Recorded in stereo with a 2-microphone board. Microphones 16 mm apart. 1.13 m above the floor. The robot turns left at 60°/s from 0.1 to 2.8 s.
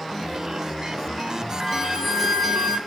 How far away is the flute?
About 0.8 m.